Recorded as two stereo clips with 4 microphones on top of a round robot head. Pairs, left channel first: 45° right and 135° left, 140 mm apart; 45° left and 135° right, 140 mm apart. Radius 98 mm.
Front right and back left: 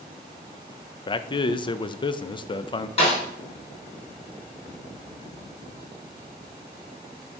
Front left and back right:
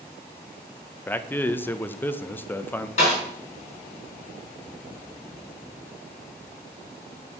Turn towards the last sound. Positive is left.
turn(degrees=0)